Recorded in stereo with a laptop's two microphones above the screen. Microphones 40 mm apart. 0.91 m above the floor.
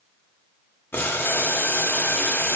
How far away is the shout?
No shout in this recording.